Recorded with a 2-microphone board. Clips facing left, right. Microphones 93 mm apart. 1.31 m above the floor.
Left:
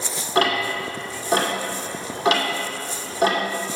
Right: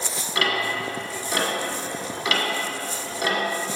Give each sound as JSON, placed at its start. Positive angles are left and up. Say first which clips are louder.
{"t": 0.3, "sound": "ticking", "louder": "left 4 dB", "side_deg": 40, "distance_m": 1.5}